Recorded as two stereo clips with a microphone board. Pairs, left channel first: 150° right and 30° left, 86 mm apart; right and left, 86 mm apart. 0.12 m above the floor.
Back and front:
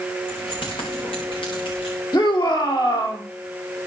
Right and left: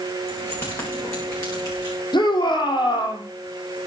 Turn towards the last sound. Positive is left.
turn(degrees=-120)